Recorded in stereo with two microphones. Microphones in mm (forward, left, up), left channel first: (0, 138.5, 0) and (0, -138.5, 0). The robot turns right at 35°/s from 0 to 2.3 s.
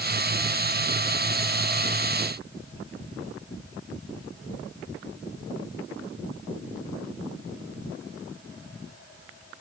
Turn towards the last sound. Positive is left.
No sound to turn to.